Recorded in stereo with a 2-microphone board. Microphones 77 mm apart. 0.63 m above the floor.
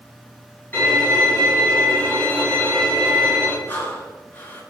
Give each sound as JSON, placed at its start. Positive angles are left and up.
{"t": 0.7, "sound": "a violin", "side_deg": 25, "distance_m": 3.0}
{"t": 3.7, "sound": "breathing", "side_deg": 30, "distance_m": 1.8}